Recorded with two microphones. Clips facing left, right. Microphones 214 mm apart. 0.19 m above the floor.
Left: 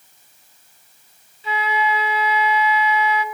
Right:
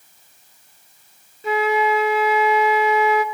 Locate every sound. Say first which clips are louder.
1.4 s a flute: right 5 dB; 50° right (ahead or behind), 0.5 m